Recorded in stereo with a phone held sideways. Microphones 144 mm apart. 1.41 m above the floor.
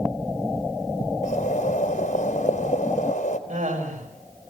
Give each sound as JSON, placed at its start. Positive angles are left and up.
{"t": 1.2, "sound": "boiling", "side_deg": 80, "distance_m": 3.5}
{"t": 3.5, "sound": "laughter", "side_deg": -70, "distance_m": 6.0}